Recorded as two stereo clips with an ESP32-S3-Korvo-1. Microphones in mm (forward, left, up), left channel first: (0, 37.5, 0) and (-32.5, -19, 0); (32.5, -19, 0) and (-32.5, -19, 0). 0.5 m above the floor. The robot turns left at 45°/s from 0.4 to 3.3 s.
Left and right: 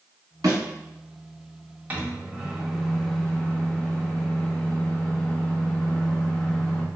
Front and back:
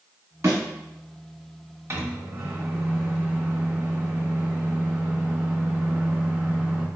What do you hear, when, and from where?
0.4 s a thud: 135° right, 1.4 m; by 0.6 s 140° right, 1.4 m
1.9 s a microwave: 170° right, 0.6 m; by 6.8 s 125° left, 0.6 m